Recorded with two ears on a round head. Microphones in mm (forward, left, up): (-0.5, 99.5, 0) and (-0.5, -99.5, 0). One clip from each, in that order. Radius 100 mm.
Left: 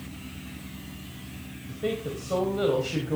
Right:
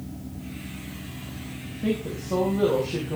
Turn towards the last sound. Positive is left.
turn(degrees=65)  # may be behind; listen again after turning